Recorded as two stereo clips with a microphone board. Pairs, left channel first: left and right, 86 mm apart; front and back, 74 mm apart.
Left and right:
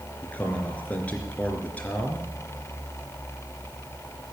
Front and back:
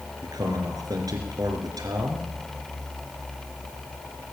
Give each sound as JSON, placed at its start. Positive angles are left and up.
{"t": 0.2, "sound": "a man speaking", "azimuth_deg": 160, "distance_m": 3.0}